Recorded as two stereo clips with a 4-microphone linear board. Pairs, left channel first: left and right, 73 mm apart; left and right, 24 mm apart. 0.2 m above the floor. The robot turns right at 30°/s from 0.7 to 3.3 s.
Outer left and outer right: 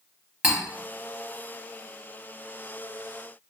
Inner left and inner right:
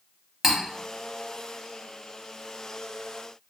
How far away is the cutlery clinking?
About 0.6 m.